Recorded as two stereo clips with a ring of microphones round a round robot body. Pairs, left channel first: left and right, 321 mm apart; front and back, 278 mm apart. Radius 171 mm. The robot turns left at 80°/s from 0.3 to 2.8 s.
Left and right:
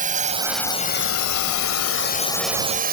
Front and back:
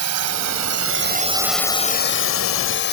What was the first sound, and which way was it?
A drone, 155° right.